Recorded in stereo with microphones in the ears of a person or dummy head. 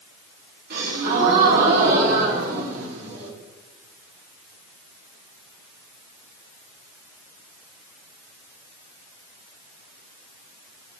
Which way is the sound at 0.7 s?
65° right (ahead or behind).